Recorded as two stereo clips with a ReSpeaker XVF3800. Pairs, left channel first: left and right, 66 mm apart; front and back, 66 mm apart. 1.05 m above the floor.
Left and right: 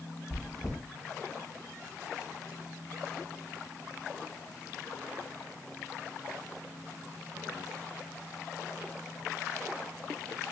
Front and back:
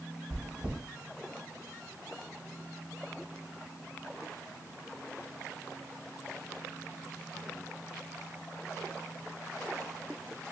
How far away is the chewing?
About 3 m.